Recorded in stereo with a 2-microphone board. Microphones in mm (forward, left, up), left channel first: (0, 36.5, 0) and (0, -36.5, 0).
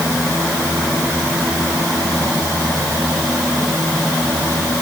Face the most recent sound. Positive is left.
No sound to turn to.